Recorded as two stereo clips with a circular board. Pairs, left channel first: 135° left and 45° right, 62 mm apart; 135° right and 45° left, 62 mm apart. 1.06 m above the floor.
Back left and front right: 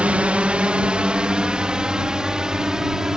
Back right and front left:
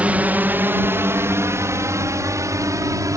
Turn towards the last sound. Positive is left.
turn(degrees=35)